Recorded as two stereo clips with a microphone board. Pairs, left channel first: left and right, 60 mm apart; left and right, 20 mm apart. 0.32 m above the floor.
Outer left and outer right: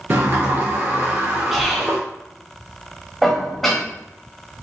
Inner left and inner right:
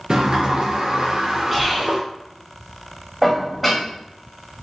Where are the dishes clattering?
5° left (ahead or behind), 1.1 m.